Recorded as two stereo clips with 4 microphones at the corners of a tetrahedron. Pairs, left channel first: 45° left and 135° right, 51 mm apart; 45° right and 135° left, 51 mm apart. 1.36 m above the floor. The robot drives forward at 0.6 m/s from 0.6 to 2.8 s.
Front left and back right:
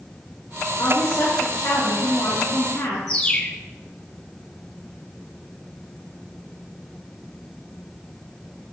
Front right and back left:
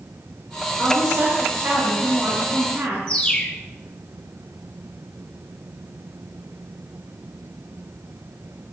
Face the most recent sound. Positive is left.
turn(degrees=0)